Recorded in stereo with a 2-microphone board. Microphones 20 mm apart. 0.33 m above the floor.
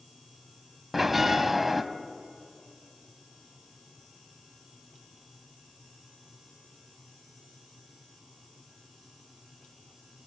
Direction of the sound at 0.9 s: 10° right (ahead or behind).